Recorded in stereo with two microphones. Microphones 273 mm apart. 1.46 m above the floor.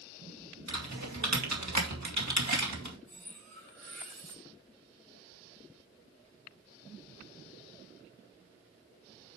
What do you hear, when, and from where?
0.7 s typing on a keyboard: 85° right, 2 m
3.1 s cutlery clinking: 75° right (ahead or behind), 6 m